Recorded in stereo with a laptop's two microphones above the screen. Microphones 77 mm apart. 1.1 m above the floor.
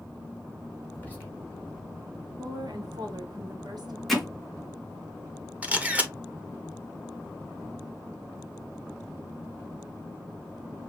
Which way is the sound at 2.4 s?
65° right (ahead or behind).